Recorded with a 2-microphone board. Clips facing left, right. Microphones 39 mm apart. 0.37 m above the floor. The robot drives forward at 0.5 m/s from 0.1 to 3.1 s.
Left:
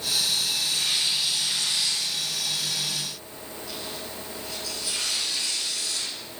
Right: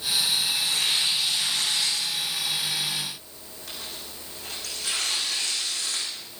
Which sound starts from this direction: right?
Tearing paper, at 0.6 s.